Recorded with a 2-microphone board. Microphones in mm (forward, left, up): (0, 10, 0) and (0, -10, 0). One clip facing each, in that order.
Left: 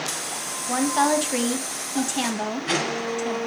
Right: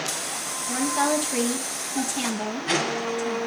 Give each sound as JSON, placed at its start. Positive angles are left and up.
{"t": 0.7, "sound": "a woman speaking", "side_deg": 30, "distance_m": 1.1}